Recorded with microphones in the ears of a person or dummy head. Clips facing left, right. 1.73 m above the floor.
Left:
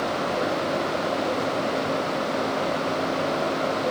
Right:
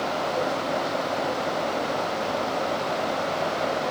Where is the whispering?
I don't hear whispering.